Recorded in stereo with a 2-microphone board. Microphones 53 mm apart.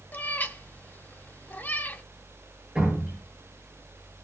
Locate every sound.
0.1 s a cat meowing: 35° left (ahead or behind), 0.6 m
2.8 s dripping: 15° right (ahead or behind), 9 m